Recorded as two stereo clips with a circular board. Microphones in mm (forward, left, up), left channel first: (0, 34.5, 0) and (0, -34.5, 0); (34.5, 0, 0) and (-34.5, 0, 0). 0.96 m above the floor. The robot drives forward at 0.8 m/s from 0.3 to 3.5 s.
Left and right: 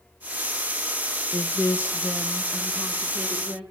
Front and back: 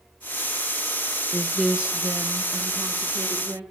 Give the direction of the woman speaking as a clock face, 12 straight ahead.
10 o'clock.